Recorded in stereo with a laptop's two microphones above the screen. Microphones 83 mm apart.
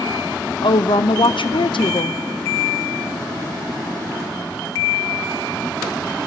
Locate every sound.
0.6 s a woman speaking: 80° left, 0.5 m